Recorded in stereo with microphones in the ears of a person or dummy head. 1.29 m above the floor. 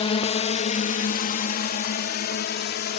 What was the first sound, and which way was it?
A drone, 25° left (ahead or behind).